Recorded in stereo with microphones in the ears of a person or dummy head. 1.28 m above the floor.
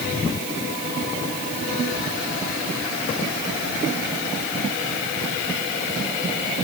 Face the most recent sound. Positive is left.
No sound to turn to.